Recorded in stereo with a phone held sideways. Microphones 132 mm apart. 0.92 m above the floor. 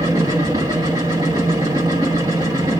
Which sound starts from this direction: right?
A machine running, at 0.0 s.